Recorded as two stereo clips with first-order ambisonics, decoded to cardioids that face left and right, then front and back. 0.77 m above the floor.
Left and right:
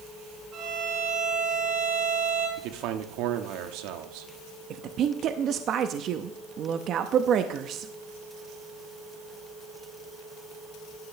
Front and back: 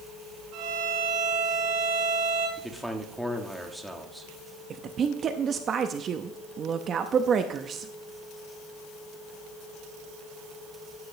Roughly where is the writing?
No writing in this recording.